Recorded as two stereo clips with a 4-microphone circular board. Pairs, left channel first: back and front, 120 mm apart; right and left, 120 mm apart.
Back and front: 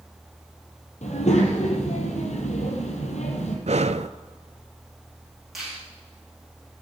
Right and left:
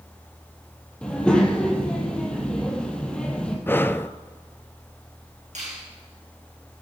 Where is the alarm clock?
I don't hear an alarm clock.